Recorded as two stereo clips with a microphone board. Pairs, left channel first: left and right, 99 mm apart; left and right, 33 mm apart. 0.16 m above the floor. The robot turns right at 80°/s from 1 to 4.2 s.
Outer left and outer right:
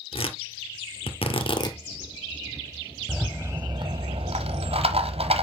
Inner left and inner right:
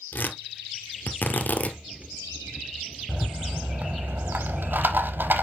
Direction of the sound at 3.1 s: 175° left.